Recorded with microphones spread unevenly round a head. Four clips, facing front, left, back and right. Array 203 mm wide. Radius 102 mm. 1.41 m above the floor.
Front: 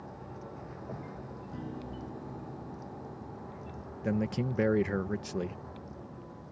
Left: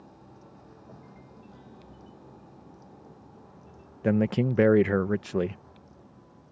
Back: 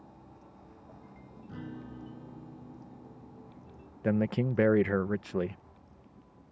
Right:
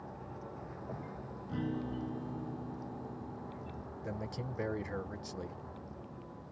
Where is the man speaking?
90° left.